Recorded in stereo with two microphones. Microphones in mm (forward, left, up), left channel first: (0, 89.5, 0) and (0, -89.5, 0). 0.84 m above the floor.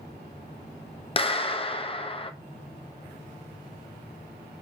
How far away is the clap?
About 0.8 m.